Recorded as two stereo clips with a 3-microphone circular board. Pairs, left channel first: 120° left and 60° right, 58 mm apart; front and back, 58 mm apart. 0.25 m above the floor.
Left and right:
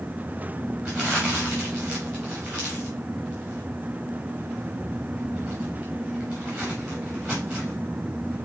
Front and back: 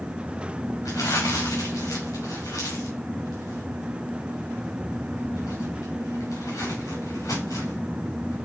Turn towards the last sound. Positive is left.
turn(degrees=20)